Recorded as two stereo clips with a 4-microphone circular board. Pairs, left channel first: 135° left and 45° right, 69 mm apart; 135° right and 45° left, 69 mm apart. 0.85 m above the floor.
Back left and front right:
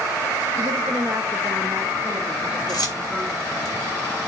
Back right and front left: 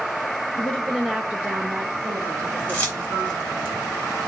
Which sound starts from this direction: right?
A woman speaking, at 0.6 s.